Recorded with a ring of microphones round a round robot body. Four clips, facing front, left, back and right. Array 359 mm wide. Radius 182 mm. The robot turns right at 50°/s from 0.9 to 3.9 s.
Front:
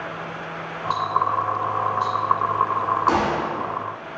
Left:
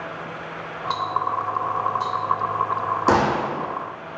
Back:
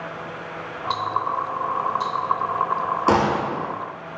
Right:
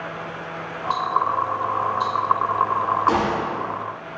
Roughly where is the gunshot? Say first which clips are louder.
Left 2 dB, back 1 dB; behind left.